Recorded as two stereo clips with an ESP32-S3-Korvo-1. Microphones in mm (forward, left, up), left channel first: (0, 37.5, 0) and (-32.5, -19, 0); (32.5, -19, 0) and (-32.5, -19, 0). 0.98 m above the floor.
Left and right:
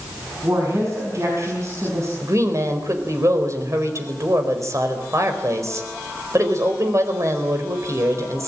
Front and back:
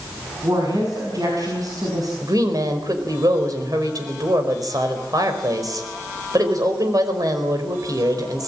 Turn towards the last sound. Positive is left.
turn(degrees=-160)